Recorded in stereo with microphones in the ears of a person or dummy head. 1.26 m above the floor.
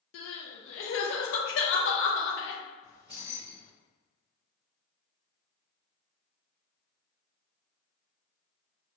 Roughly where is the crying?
Left.